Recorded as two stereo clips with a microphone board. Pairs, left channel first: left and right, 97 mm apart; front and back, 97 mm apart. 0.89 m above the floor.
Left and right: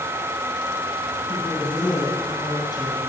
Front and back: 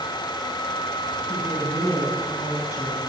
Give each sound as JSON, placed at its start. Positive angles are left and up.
{"t": 1.3, "sound": "a woman speaking", "azimuth_deg": 55, "distance_m": 7.5}